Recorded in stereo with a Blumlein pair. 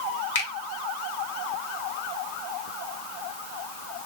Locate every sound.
0.3 s a finger snap: 55° left, 1.0 m